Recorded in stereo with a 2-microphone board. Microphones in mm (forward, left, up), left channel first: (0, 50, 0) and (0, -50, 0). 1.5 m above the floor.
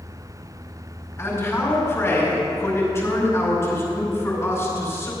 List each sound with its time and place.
1.2 s a man speaking: 25° left (ahead or behind), 4.5 m